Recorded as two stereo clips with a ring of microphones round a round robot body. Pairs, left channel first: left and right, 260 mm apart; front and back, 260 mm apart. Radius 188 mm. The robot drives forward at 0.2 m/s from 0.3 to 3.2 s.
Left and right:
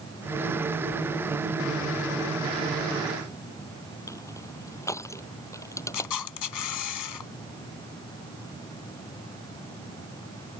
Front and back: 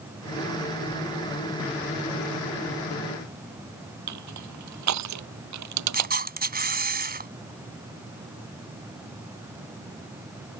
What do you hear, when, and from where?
4.1 s crushing: 170° left
5.9 s a camera shutter: 125° left